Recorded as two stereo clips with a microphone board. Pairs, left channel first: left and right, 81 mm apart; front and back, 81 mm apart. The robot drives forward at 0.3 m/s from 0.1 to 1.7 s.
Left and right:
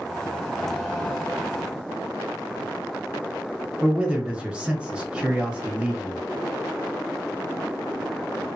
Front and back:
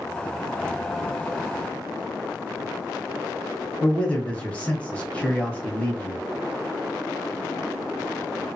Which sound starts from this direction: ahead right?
A man speaking, at 3.8 s.